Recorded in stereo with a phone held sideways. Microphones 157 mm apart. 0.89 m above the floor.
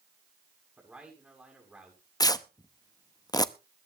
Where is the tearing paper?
25° left (ahead or behind), 0.7 m.